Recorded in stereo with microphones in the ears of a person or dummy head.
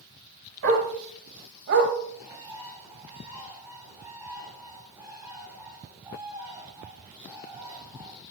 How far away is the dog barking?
About 2.5 m.